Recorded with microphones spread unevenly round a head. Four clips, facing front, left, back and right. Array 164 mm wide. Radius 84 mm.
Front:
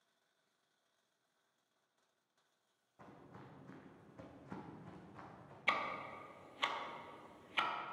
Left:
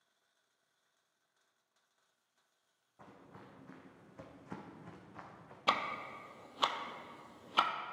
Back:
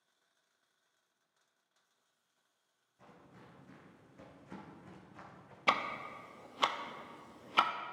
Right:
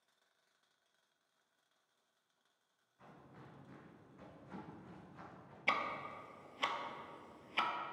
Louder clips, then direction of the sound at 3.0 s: Left 3 dB, front 1 dB; 55° left.